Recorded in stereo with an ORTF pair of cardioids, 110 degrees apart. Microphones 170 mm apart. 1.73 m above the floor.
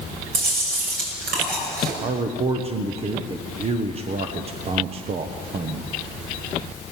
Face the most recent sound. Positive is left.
turn(degrees=-35)